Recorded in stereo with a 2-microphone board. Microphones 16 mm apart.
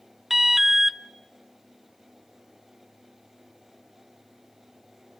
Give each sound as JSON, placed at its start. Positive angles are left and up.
{"t": 0.3, "sound": "an alarm", "side_deg": -20, "distance_m": 0.8}